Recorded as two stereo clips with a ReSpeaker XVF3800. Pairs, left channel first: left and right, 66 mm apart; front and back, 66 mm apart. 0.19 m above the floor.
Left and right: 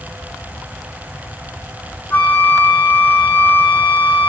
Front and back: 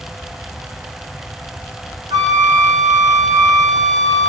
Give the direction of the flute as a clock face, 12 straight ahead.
7 o'clock.